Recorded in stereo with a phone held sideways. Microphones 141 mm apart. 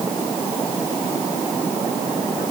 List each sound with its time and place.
Only background noise.